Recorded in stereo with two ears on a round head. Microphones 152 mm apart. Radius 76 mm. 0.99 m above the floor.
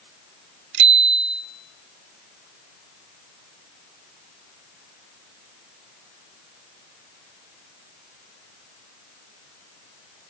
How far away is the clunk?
I don't hear a clunk.